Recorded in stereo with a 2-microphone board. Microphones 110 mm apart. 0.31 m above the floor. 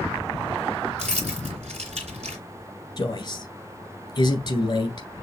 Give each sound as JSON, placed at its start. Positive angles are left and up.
{"t": 1.0, "sound": "keys jangling", "side_deg": -75, "distance_m": 2.0}
{"t": 3.0, "sound": "a man speaking", "side_deg": 40, "distance_m": 2.0}